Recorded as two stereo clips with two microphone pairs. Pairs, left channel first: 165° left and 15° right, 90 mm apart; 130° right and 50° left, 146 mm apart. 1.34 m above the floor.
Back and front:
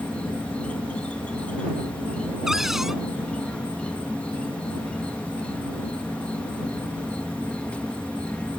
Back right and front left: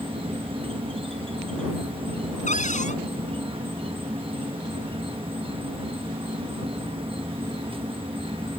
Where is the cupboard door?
100° right.